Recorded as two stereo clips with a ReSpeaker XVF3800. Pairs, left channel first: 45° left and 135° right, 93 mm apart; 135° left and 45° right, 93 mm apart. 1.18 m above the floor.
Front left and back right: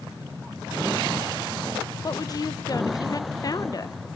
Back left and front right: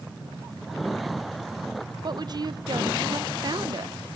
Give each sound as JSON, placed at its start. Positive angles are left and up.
{"t": 2.0, "sound": "a woman speaking", "azimuth_deg": 0, "distance_m": 0.6}